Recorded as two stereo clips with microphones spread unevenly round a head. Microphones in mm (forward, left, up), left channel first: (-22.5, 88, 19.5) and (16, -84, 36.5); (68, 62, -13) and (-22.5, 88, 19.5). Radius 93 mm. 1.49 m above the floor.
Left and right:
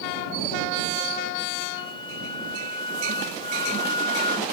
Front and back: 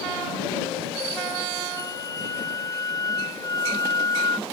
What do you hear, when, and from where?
1.8 s a flute: 40° left